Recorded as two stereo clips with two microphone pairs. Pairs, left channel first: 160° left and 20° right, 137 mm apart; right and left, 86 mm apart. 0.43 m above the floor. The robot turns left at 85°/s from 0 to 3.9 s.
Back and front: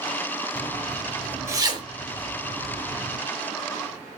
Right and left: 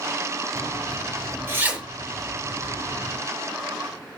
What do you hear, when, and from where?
0.6 s a zipper: 120° left, 0.9 m; by 3.2 s 100° right, 0.9 m